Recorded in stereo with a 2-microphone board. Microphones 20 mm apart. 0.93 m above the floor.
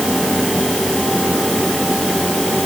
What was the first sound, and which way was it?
Only background noise.